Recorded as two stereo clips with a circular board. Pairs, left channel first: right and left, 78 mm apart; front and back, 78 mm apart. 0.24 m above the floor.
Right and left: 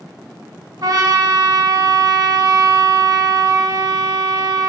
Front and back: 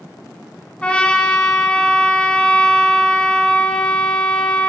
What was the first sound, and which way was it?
A trumpet, 75° left.